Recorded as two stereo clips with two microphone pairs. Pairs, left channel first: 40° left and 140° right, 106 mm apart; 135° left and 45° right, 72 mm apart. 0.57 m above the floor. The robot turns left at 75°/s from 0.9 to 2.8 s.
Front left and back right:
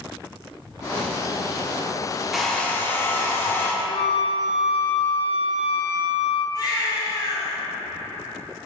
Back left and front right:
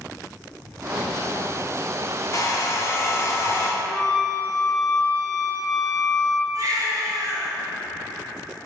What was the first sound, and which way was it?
A hair dryer, 135° left.